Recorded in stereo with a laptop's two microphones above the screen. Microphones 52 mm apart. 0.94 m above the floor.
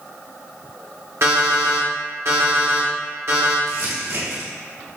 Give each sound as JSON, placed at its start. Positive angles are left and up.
{"t": 1.2, "sound": "an alarm clock", "side_deg": -65, "distance_m": 1.2}
{"t": 3.7, "sound": "crumpling", "side_deg": -70, "distance_m": 1.5}